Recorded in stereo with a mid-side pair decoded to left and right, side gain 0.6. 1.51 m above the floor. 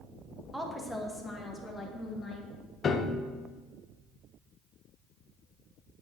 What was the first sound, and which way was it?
A woman speaking, 5° right.